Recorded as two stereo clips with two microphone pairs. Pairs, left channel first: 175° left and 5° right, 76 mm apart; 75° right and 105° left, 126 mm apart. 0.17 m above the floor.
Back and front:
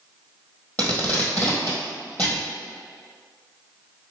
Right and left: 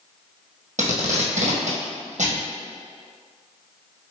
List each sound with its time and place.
0.8 s tape being pulled: 100° left, 1.3 m